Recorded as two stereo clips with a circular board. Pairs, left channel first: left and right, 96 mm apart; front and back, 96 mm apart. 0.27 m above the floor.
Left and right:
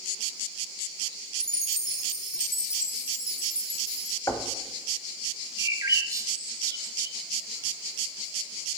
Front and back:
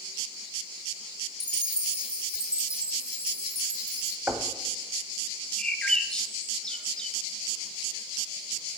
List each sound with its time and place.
1.4 s a chime: 110° left, 0.6 m
4.3 s knocking: 120° left, 0.8 m
5.6 s a bird: 75° right, 0.8 m